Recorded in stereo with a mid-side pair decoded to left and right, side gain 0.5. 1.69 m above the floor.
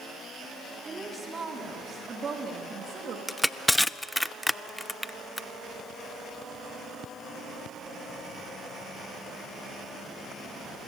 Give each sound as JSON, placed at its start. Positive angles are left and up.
{"t": 0.8, "sound": "a woman speaking", "azimuth_deg": -25, "distance_m": 5.5}
{"t": 3.3, "sound": "crushing", "azimuth_deg": 10, "distance_m": 0.5}